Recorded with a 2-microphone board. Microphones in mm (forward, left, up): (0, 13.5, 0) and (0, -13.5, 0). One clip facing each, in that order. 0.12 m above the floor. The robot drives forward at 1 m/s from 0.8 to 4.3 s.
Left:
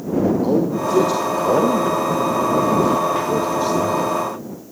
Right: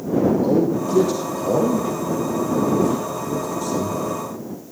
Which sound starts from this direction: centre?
A man speaking, at 0.4 s.